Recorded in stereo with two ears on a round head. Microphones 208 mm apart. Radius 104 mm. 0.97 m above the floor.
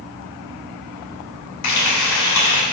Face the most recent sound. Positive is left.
turn(degrees=85)